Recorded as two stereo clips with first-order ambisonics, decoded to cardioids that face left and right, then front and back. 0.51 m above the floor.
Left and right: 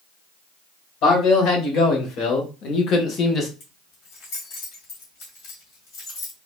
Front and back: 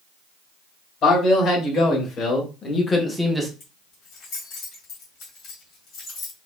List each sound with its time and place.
1.0 s a man speaking: 55° left, 2 m; by 3.5 s 115° left, 0.6 m
3.6 s keys jangling: 55° left, 1.9 m